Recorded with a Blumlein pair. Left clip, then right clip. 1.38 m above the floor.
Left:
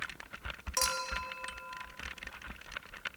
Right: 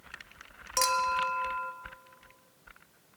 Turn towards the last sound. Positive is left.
turn(degrees=-10)